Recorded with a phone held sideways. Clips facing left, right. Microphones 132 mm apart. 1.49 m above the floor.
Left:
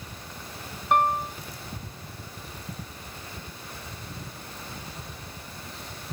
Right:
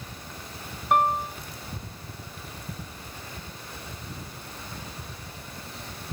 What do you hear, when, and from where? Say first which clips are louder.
0.9 s a piano: even; centre (ahead or behind)